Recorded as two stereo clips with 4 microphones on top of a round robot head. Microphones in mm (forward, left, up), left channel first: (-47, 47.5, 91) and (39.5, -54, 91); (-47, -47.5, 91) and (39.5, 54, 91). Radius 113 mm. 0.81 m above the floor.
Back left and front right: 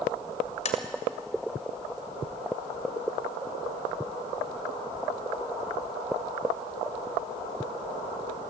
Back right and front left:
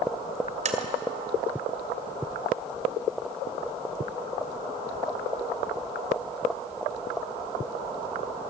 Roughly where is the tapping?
Left.